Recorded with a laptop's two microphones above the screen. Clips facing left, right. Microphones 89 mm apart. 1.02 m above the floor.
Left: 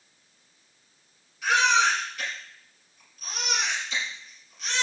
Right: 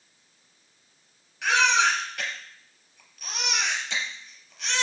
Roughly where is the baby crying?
Right.